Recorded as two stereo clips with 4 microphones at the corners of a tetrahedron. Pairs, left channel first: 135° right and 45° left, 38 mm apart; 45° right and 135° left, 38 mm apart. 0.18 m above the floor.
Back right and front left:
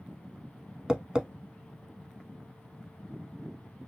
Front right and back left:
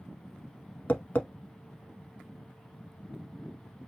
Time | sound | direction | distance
0.9 | tapping | 20° right | 0.6 m